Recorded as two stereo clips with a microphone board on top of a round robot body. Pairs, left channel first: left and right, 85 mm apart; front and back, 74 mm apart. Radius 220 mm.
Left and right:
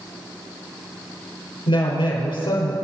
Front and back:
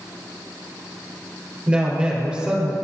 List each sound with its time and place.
1.7 s a woman speaking: 105° left, 5 m